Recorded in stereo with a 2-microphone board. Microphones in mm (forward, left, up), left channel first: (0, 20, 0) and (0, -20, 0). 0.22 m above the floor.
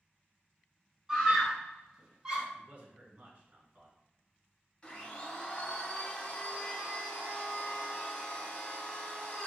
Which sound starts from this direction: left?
A blender, at 4.8 s.